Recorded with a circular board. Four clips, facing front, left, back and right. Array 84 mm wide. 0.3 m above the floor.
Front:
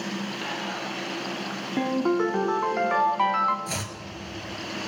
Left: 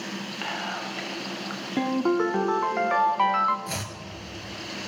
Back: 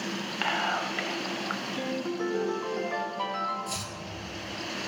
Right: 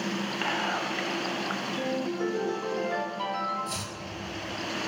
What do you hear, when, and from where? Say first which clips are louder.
0.4 s whispering: right 2 dB, back 3 dB; 170° right, 1.3 m
1.8 s a ringtone: left 9 dB, front 11 dB; 55° left, 1.2 m
3.7 s chopping: left 2 dB, front 3 dB; 35° left, 2 m